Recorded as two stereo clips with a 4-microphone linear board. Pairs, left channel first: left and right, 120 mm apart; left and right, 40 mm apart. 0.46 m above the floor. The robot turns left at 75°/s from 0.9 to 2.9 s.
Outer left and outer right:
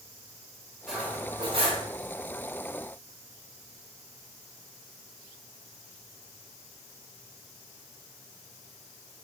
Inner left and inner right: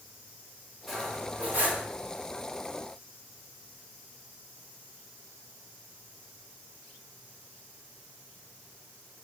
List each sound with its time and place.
0.9 s cutlery clinking: 5° right, 0.9 m; by 1.9 s 75° right, 0.9 m